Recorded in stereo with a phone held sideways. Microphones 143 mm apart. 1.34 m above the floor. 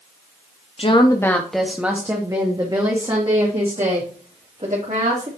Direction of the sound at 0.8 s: 40° left (ahead or behind).